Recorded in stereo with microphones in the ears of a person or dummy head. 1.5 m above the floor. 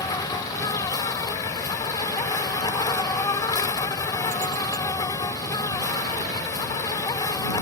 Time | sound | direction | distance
0.0 | an insect | 20° left (ahead or behind) | ?